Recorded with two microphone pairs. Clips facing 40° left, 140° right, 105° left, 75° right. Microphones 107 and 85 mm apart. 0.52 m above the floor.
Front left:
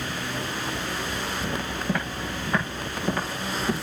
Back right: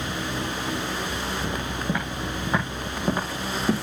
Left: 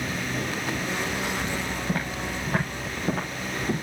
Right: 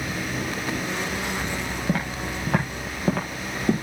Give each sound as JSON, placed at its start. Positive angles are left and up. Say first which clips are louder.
{"t": 1.9, "sound": "footsteps", "louder": "even, right 2 dB", "azimuth_deg": -60, "distance_m": 6.0}